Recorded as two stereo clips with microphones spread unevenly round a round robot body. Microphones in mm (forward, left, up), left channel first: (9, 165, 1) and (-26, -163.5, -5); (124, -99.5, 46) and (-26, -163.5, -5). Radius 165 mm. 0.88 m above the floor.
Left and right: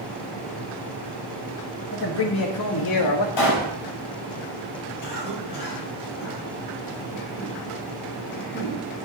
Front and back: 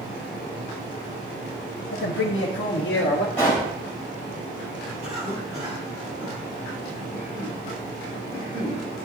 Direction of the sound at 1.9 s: 25° left.